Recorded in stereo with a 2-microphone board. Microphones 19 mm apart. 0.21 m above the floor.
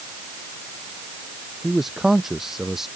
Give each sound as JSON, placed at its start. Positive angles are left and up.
{"t": 1.6, "sound": "a man speaking", "side_deg": -20}